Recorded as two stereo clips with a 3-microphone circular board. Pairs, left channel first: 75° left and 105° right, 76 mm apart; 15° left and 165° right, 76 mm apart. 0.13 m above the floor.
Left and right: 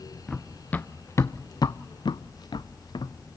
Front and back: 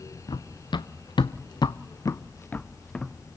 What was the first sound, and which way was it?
Running footsteps, 5° right.